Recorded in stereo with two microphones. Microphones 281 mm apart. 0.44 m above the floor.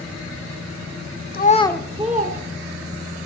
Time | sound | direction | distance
1.3 | a child speaking | 35° left (ahead or behind) | 0.7 m